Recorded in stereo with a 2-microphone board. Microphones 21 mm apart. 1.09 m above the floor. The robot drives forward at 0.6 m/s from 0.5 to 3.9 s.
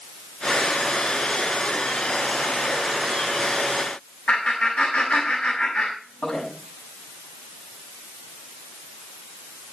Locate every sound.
4.3 s laughter: 65° left (ahead or behind), 6.5 m